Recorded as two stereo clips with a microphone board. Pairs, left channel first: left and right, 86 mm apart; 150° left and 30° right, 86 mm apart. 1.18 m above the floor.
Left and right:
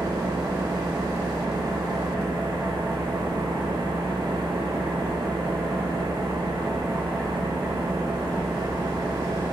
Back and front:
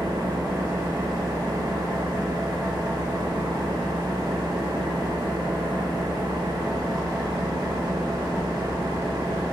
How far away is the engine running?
About 2 m.